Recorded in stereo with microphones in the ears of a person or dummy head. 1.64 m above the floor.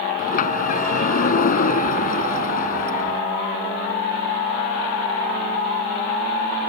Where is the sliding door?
50° left (ahead or behind).